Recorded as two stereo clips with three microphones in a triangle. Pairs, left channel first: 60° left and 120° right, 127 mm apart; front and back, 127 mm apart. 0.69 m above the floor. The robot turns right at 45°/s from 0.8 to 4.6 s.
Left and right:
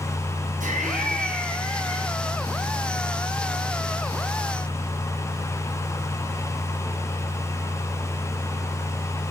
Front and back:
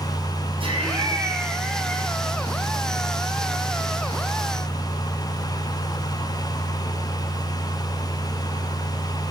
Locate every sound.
0.6 s laughter: 130° right, 6.5 m; by 2.1 s 75° right, 6.5 m